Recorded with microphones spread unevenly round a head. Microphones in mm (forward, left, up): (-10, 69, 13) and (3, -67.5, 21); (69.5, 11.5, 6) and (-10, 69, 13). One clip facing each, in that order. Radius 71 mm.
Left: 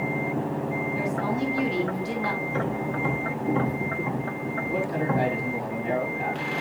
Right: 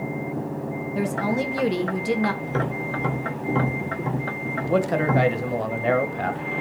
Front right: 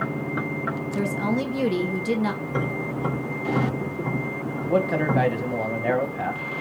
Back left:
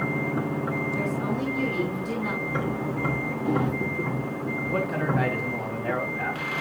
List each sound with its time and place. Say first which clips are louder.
0.9 s a woman speaking: right 5 dB, front right 3 dB; 50° right, 1.3 m
2.4 s tapping: right 1 dB, even; 100° right, 2.5 m
4.6 s a man speaking: right 6 dB, front right 6 dB; 80° right, 1.7 m